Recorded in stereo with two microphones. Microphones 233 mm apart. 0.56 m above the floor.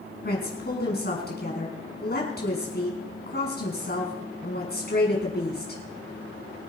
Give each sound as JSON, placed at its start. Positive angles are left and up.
{"t": 0.2, "sound": "a woman speaking", "side_deg": 45, "distance_m": 5.0}